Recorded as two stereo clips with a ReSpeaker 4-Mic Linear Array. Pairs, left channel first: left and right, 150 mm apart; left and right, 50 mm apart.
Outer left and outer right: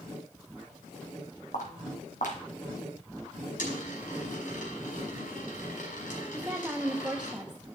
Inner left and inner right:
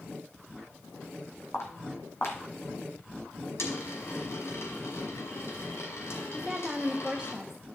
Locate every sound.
1.5 s footsteps: 65° left (ahead or behind), 3 m
3.6 s a dropped coin: 70° left (ahead or behind), 5 m
6.3 s a woman speaking: 10° right (ahead or behind), 1.1 m